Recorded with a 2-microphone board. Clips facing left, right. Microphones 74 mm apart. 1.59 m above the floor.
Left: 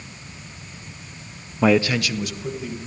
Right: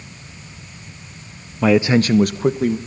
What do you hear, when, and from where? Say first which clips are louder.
1.6 s a man speaking: right 3 dB; 10° left (ahead or behind), 0.6 m; by 2.8 s 65° right (ahead or behind), 1.7 m